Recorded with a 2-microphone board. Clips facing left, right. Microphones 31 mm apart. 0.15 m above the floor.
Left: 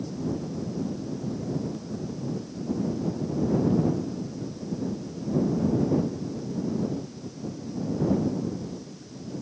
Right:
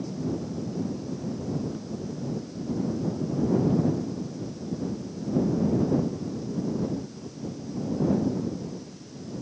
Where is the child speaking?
I don't hear a child speaking.